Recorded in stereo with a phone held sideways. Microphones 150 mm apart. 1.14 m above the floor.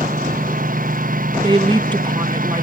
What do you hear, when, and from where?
0.0 s a lawn mower: 70° right (ahead or behind)
1.4 s a woman speaking: 30° right (ahead or behind)